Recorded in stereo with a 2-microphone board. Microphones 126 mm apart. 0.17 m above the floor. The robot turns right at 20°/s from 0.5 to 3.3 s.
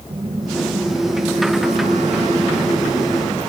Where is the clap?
No clap in this recording.